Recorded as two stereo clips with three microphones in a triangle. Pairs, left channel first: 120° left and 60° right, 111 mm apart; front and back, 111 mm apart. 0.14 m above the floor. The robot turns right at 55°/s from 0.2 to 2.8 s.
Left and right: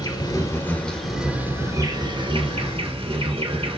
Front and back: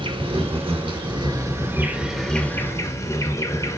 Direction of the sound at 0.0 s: 160° left.